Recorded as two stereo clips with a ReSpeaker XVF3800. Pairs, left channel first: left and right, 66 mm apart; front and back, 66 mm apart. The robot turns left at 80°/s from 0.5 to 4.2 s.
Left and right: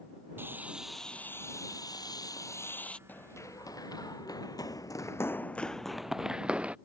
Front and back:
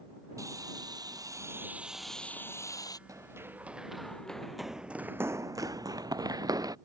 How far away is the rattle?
No rattle in this recording.